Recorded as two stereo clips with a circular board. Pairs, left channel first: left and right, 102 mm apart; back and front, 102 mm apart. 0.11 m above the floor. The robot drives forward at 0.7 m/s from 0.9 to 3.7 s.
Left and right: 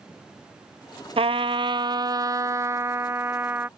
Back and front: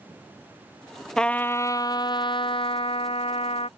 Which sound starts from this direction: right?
A trumpet, at 1.2 s.